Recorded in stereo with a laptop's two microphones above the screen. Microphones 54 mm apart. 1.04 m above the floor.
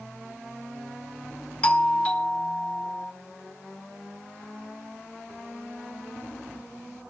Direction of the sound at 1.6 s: 25° left (ahead or behind).